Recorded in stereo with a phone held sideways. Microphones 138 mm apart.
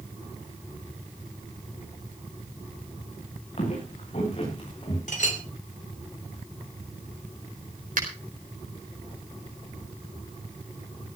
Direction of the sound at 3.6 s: 55° left (ahead or behind).